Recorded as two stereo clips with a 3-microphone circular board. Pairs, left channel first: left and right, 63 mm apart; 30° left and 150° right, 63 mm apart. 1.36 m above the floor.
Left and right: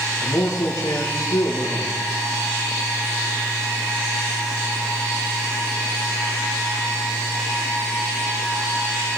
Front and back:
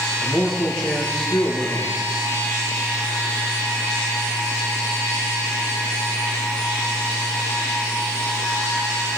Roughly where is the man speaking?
Left.